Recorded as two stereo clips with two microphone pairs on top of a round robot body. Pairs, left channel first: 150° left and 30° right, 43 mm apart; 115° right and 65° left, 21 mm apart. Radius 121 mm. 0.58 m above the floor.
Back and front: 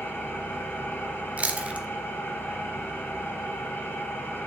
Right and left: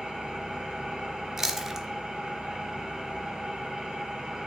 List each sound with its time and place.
0.0 s an engine running: 115° left, 2.5 m
1.4 s chewing: 15° left, 1.0 m